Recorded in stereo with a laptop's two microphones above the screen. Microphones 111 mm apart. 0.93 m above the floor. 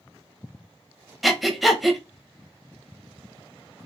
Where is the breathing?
Centre (ahead or behind), 0.8 m.